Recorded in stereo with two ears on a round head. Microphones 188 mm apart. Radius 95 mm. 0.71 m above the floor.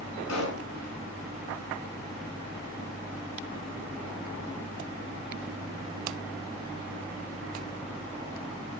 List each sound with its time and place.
0.3 s a pop: 85° left, 5 m